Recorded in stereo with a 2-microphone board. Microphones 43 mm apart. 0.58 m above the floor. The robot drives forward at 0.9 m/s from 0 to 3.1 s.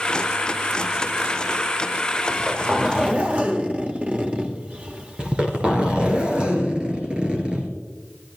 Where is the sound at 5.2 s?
25° right (ahead or behind), 2.5 m.